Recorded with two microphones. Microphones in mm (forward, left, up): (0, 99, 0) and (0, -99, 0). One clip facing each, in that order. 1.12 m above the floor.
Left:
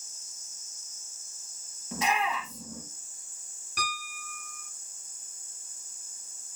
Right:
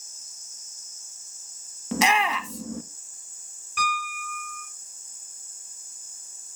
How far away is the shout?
About 1.0 m.